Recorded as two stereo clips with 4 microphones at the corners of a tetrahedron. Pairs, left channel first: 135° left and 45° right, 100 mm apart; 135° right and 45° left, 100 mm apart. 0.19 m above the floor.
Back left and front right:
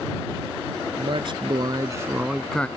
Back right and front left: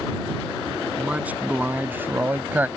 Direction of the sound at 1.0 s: 30° right.